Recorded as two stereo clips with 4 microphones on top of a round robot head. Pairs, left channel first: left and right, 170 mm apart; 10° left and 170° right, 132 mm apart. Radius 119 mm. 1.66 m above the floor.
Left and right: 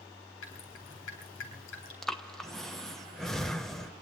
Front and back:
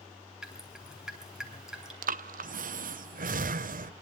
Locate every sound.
0.4 s dripping: 100° left, 5.5 m
2.0 s breathing: straight behind, 0.8 m